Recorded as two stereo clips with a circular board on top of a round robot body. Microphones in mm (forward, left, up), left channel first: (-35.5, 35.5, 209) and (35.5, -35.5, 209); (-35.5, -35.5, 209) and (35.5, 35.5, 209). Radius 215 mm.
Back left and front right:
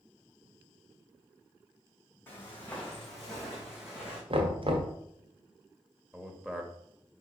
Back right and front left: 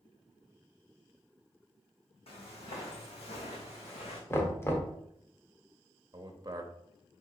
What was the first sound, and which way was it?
Footsteps, 155° right.